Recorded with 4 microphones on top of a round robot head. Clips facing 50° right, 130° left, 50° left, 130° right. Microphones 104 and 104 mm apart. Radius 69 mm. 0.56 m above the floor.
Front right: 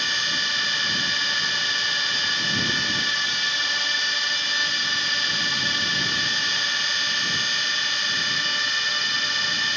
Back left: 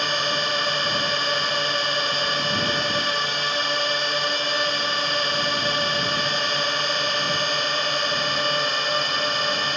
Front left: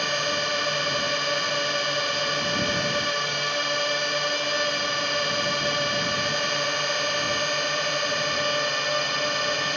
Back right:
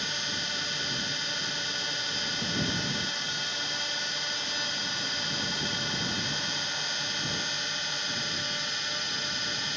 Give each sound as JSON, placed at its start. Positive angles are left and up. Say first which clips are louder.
{"t": 0.0, "sound": "a drone", "louder": "back left 6 dB, front left 11 dB", "azimuth_deg": 80}